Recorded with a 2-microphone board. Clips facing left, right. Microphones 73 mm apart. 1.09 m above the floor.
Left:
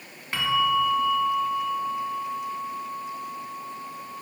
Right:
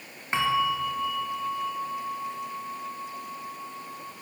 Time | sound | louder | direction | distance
0.3 | a bell | left 2 dB | 25° right (ahead or behind) | 0.8 m